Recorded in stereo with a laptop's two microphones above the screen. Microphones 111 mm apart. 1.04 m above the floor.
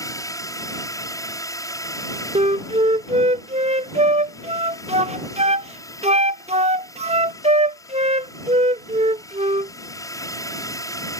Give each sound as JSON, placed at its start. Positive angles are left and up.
{"t": 0.0, "sound": "a drone", "side_deg": 30}
{"t": 2.4, "sound": "a flute", "side_deg": -80}